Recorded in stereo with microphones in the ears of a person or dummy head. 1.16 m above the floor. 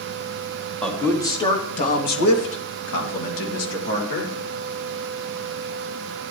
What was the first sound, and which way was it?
A man speaking, 5° left (ahead or behind).